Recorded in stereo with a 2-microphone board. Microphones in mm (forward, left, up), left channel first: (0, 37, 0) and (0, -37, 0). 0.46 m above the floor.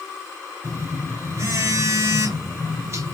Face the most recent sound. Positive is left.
turn(degrees=-45)  # may be behind; listen again after turning